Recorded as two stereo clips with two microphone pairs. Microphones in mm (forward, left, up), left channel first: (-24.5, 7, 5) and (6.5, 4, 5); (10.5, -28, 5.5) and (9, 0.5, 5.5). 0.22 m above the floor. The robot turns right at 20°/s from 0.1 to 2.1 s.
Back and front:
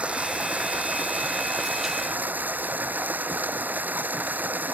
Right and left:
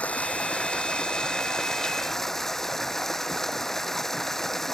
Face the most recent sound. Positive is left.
turn(degrees=-10)